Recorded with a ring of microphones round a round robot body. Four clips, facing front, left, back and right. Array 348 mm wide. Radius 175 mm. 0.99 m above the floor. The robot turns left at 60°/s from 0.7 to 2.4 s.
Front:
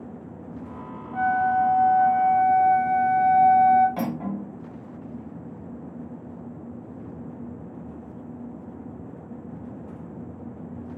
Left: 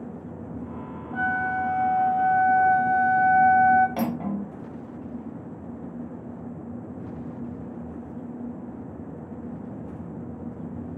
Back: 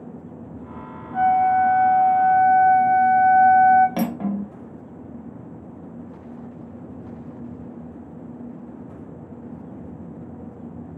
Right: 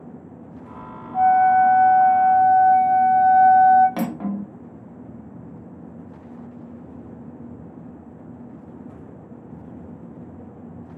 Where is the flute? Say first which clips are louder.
Right 12 dB, back 4 dB; 95° left, 1.5 m; by 3.9 s 20° left, 1.5 m.